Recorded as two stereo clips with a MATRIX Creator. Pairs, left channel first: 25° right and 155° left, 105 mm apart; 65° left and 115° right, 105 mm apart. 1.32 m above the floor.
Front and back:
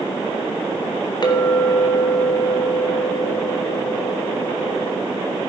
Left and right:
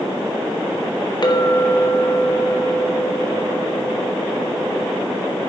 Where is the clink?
25° left, 1.2 m.